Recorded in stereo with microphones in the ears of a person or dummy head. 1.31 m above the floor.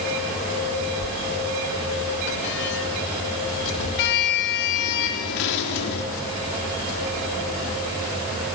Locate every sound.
1.0 s a sliding door: 65° left (ahead or behind), 3.5 m